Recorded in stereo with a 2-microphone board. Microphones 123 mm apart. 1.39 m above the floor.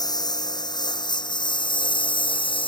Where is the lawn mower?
35° left (ahead or behind); by 2.7 s 45° left (ahead or behind).